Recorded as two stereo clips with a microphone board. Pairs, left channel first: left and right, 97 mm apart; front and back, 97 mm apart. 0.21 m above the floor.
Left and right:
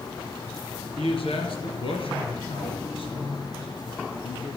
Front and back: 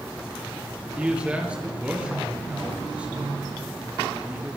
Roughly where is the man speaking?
Left.